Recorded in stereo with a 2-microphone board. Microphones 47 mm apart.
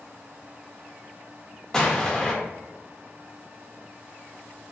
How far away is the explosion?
About 0.5 m.